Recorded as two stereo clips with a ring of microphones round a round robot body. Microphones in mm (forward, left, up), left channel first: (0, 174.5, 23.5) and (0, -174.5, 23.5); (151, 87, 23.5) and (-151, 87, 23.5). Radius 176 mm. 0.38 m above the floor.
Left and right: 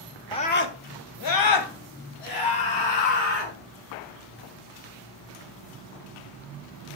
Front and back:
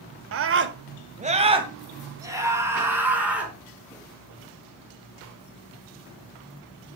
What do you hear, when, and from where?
0.3 s a scream: 165° left, 1.2 m; by 3.5 s 95° left, 5 m